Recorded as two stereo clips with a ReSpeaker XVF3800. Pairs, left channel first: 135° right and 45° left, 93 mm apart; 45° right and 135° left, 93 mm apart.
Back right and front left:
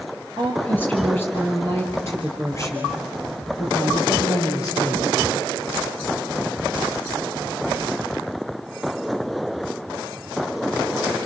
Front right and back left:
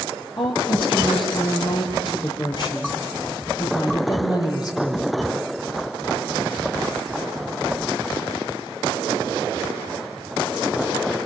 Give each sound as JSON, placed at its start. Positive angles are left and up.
{"t": 0.4, "sound": "a woman speaking", "azimuth_deg": -60, "distance_m": 3.0}